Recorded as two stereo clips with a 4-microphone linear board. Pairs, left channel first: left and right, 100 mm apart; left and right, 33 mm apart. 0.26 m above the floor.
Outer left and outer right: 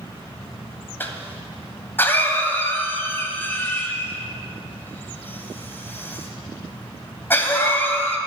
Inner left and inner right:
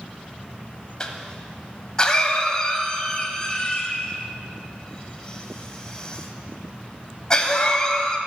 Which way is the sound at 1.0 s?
20° left (ahead or behind).